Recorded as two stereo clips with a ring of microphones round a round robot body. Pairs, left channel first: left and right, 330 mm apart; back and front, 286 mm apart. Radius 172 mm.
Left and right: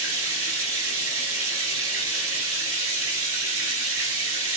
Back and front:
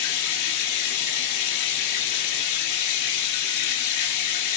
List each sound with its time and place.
0.0 s running water: 140° right, 1.3 m